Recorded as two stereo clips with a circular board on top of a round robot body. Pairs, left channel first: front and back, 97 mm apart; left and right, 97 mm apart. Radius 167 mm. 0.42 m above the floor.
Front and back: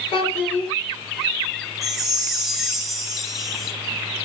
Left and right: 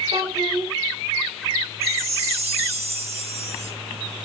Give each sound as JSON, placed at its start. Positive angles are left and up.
{"t": 0.1, "sound": "a child speaking", "azimuth_deg": -35, "distance_m": 4.0}
{"t": 1.8, "sound": "a chime", "azimuth_deg": -90, "distance_m": 2.5}